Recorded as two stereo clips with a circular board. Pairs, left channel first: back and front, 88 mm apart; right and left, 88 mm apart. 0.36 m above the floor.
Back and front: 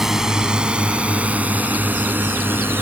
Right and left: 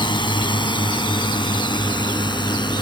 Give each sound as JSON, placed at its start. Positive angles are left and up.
{"t": 0.0, "sound": "a drone", "azimuth_deg": -85}